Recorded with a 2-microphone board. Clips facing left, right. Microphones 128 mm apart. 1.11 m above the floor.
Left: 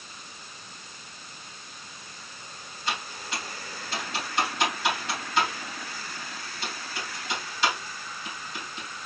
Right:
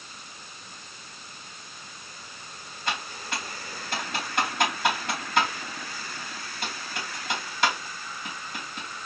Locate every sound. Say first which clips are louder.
2.9 s typing on a keyboard: right 1 dB; 55° right (ahead or behind), 2.5 m